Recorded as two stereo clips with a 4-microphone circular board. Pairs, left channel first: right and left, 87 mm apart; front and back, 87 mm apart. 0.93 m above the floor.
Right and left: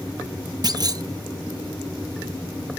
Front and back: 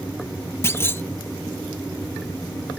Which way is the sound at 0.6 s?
60° left.